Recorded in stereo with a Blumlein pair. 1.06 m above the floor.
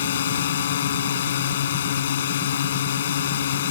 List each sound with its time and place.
0.0 s a drone: 60° left